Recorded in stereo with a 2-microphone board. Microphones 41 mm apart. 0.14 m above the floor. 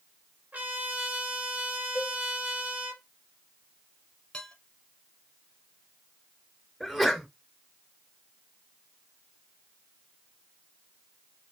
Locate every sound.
0.5 s a trumpet: 40° right (ahead or behind), 2.5 m
1.9 s a cowbell: 45° right (ahead or behind), 1.6 m
4.3 s dishes clattering: 20° left (ahead or behind), 1.7 m
6.8 s a sneeze: 5° right (ahead or behind), 1.6 m